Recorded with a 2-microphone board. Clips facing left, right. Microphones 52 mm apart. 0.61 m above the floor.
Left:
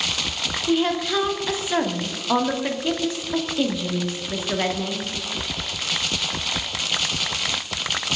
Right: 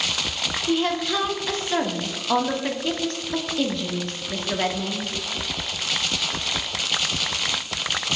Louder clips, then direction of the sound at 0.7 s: Left 2 dB; 5° left (ahead or behind).